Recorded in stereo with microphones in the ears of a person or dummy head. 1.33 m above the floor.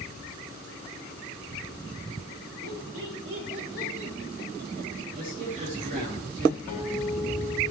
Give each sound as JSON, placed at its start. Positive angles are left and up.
{"t": 2.6, "sound": "laughter", "side_deg": -85, "distance_m": 5.0}
{"t": 5.1, "sound": "a man speaking", "side_deg": -50, "distance_m": 3.0}
{"t": 6.7, "sound": "a guitar", "side_deg": 55, "distance_m": 4.5}